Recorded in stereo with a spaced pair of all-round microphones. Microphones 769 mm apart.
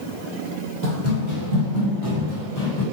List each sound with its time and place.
0.8 s running footsteps: 15° left (ahead or behind), 1.3 m; by 2.8 s 30° left (ahead or behind), 1.7 m